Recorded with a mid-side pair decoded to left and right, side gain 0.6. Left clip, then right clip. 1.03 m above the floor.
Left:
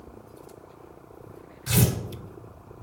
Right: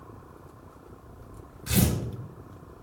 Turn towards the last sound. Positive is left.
turn(degrees=15)